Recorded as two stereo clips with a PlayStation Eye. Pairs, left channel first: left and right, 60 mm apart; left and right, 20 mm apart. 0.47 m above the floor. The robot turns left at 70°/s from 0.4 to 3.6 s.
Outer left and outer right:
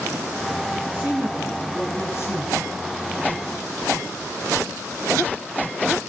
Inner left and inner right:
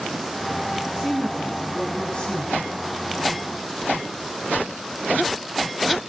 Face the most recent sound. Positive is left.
turn(degrees=30)